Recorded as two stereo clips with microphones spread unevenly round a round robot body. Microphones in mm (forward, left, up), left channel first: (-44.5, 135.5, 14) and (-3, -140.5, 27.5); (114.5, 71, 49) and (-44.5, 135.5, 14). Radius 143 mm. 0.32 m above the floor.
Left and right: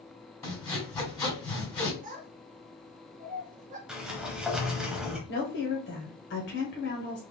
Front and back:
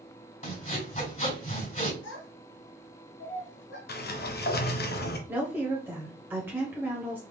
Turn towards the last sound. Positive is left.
turn(degrees=100)